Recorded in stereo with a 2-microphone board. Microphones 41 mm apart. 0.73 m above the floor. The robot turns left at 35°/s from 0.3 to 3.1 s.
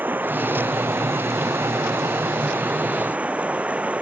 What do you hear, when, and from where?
0.0 s running water: 50° right; by 4.0 s 150° right